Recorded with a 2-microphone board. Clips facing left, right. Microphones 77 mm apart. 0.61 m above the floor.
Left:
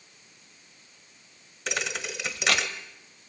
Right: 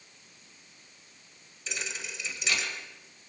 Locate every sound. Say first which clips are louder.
1.7 s a thud: left 7 dB; 70° left (ahead or behind), 1.5 m